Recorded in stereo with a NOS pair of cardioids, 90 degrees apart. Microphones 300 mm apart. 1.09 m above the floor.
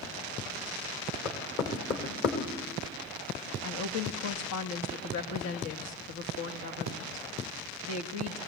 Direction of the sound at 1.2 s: 45° left.